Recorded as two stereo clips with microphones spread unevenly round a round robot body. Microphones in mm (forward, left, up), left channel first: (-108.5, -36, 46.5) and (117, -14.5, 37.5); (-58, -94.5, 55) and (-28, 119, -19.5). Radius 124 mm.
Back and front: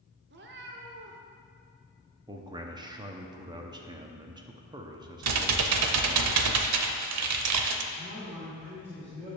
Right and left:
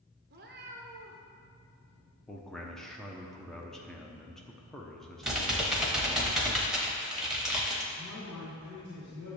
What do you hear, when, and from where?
0.3 s a cat meowing: 45° left, 0.9 m
2.3 s a man speaking: 40° left, 0.8 m
5.2 s typing on a keyboard: 10° right, 0.7 m
7.9 s a man speaking: 45° right, 2.5 m